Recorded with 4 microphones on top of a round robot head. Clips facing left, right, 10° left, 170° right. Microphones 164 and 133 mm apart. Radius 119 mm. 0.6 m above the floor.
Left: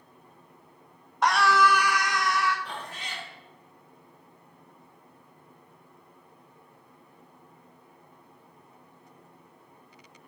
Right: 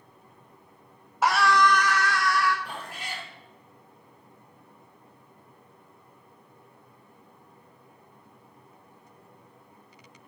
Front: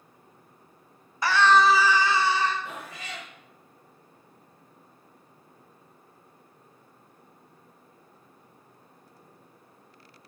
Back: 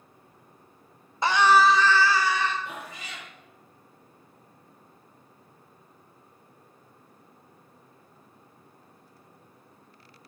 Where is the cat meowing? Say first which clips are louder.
Right 1 dB, even; 10° right, 3.5 m.